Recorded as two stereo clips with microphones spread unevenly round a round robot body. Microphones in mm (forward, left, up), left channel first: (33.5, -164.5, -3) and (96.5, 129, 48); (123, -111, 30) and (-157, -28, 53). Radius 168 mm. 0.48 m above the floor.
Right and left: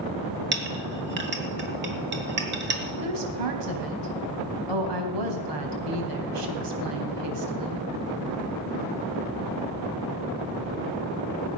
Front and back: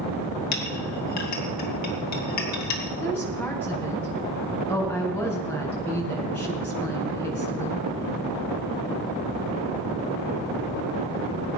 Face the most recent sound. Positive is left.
turn(degrees=70)